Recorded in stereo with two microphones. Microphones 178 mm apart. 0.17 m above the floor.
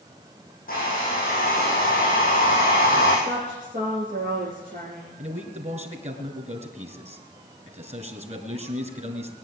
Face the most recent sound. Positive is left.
turn(degrees=-35)  # may be behind; listen again after turning